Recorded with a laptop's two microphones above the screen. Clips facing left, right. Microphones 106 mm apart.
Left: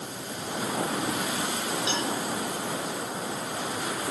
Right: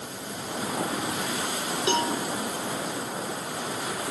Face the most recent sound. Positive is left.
turn(degrees=-55)  # may be behind; listen again after turning